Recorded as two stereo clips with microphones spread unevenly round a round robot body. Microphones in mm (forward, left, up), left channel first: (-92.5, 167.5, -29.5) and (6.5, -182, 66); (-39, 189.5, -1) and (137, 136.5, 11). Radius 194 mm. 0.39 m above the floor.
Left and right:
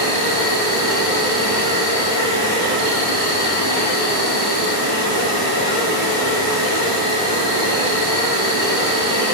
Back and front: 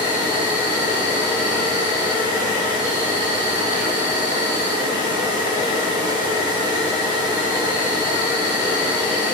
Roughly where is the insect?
Ahead right.